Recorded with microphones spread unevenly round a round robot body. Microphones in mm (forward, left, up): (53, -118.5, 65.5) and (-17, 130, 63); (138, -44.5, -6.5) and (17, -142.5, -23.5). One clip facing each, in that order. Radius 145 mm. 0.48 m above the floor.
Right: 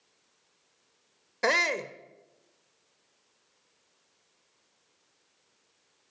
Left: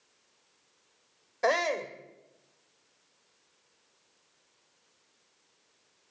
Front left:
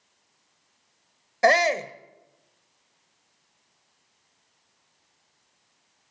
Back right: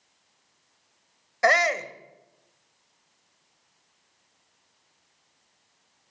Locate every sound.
1.4 s a shout: 20° right, 1.8 m